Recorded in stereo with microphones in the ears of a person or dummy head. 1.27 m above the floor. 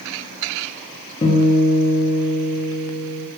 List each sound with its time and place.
1.2 s a guitar: 25° left (ahead or behind), 0.5 m